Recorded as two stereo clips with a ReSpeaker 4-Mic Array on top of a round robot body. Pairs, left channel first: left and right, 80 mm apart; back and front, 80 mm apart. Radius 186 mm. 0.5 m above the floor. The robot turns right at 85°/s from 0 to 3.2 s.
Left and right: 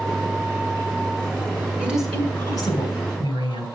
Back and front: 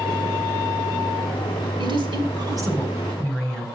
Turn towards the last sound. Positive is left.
turn(degrees=100)